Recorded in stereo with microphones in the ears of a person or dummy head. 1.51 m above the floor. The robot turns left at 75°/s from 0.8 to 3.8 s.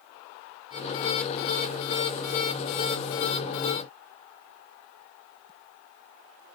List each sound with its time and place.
Only background noise.